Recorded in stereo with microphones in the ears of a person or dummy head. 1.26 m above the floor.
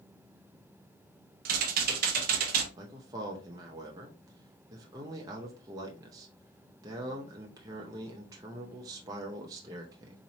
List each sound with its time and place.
1.4 s typing on a keyboard: 50° right (ahead or behind), 0.7 m
2.8 s a man speaking: 20° right (ahead or behind), 0.6 m